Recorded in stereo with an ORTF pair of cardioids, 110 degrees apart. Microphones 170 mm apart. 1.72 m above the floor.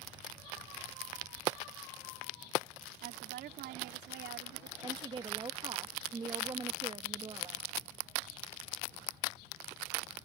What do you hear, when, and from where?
3.0 s a woman speaking: 70° right; by 4.7 s 75° right
4.8 s a woman speaking: 30° right